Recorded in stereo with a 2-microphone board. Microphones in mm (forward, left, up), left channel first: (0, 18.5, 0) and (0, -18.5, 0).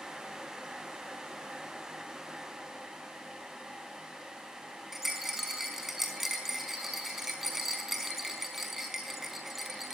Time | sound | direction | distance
4.9 | a rattle | 10° right (ahead or behind) | 4.5 m